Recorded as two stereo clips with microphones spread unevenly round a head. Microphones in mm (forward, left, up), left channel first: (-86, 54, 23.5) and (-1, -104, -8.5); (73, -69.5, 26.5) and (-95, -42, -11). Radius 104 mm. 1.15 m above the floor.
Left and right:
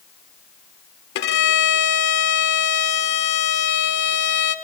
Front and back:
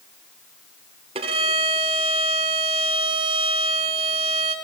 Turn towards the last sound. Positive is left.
turn(degrees=100)